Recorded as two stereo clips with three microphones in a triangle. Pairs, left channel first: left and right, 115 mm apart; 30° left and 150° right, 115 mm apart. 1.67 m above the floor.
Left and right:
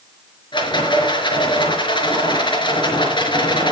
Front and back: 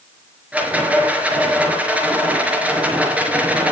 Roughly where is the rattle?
Behind left.